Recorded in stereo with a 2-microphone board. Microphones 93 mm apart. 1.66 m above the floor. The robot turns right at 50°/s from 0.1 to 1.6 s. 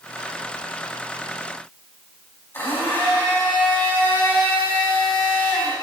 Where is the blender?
25° left (ahead or behind), 4 m.